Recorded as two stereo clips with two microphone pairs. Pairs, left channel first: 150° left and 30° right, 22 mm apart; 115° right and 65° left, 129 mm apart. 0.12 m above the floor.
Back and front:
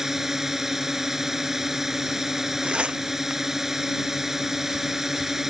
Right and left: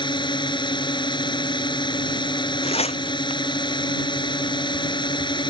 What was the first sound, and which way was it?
A drone, 95° right.